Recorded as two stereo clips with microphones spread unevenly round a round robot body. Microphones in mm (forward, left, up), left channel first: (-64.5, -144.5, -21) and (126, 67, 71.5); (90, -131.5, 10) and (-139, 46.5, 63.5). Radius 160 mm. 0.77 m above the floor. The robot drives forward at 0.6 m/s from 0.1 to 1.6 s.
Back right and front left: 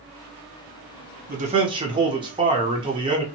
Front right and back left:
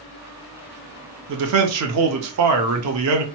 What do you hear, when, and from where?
1.3 s a man speaking: 115° left, 0.7 m; by 3.2 s 135° left, 0.7 m